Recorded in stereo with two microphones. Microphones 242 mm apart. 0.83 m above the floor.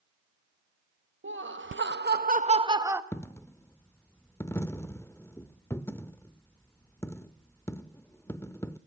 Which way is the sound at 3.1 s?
10° left (ahead or behind).